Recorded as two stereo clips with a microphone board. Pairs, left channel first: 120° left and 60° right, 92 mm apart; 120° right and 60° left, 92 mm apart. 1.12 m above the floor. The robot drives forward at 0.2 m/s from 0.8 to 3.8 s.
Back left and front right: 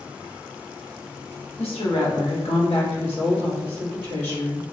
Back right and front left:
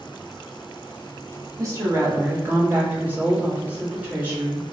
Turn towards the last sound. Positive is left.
turn(degrees=135)